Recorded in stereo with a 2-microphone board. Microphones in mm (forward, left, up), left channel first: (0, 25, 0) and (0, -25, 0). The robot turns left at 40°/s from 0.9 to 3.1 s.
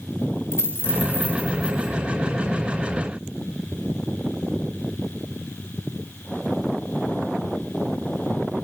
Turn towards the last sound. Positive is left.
turn(degrees=-40)